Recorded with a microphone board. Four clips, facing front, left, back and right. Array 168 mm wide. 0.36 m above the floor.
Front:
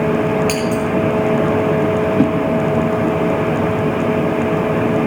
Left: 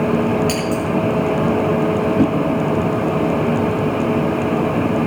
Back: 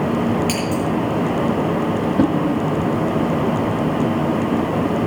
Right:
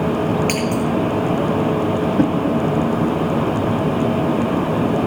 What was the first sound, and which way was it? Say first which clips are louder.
Scissors: even, front 3 dB; 110° right.